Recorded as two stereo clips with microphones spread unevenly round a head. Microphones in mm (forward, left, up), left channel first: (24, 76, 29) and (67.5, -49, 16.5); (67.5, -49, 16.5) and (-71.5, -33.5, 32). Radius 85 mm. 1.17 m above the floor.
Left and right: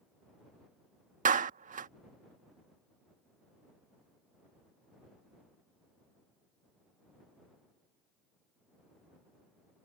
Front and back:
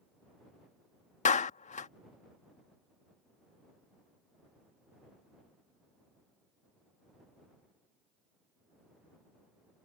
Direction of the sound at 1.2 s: 45° right.